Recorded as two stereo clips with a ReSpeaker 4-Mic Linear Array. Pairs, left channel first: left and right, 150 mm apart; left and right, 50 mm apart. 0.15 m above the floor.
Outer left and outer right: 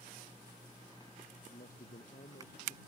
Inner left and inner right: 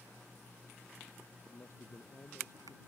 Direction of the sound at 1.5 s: 65° left (ahead or behind).